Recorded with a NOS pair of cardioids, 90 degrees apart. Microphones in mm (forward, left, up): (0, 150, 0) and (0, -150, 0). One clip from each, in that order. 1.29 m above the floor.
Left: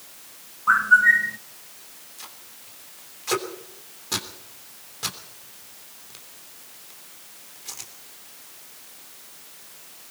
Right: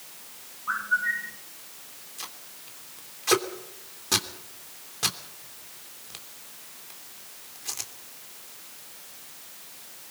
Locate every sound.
0.7 s a bird: 45° left, 0.5 m
2.2 s tape being pulled: 25° right, 3 m